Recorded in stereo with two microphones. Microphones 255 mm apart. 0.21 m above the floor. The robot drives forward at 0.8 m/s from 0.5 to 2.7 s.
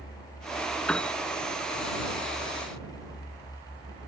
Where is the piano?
5° left (ahead or behind).